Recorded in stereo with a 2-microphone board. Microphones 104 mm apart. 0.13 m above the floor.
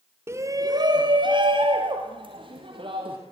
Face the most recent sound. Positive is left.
turn(degrees=-55)  # may be behind; listen again after turning